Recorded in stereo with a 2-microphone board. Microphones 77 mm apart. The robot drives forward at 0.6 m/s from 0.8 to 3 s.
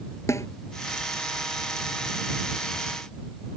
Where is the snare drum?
40° left (ahead or behind).